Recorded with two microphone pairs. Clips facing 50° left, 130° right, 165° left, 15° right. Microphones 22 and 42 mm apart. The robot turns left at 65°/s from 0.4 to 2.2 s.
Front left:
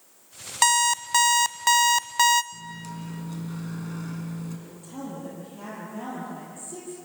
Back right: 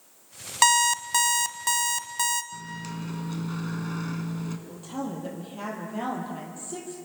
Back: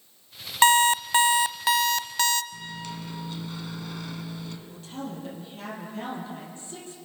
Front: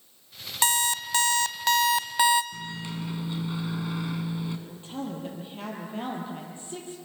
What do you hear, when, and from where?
0.6 s an alarm clock: 150° left, 0.8 m; by 2.4 s 50° left, 0.8 m
2.5 s a microwave: 75° right, 1.9 m
4.7 s a woman speaking: 75° right, 5.5 m